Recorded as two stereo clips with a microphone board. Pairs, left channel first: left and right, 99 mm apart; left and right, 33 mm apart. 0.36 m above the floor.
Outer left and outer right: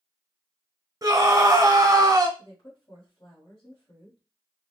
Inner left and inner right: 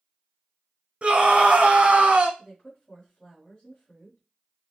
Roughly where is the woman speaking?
Left.